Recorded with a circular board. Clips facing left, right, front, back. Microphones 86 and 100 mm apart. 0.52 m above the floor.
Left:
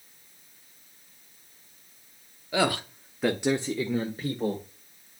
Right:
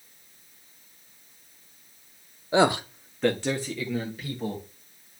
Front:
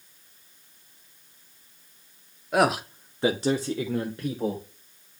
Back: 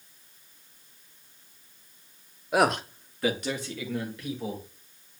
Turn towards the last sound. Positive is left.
turn(degrees=45)